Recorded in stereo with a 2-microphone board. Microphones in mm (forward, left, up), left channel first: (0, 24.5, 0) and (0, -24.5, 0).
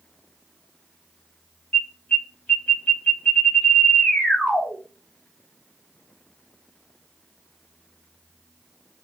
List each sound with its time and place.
1.7 s an alarm: 25° left (ahead or behind), 1.4 m